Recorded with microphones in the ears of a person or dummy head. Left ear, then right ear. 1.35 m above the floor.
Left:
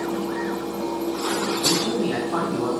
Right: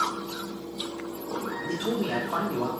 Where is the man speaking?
30° right (ahead or behind), 3 m.